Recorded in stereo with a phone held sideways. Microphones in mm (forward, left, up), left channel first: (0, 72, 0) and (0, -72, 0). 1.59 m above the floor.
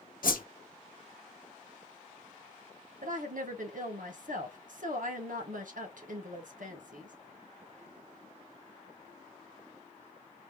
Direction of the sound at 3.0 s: 70° right (ahead or behind).